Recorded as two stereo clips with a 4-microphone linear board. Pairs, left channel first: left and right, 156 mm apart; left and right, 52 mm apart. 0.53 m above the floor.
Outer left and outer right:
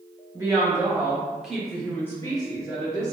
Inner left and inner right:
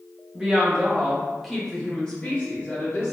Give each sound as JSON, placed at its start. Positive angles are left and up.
{"t": 0.3, "sound": "a woman speaking", "side_deg": -20, "distance_m": 1.2}